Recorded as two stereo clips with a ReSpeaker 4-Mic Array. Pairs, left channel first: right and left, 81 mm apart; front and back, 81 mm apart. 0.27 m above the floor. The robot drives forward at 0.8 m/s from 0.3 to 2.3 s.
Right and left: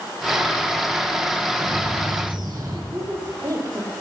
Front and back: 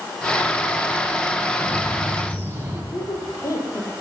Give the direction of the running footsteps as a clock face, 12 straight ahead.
No running footsteps in this recording.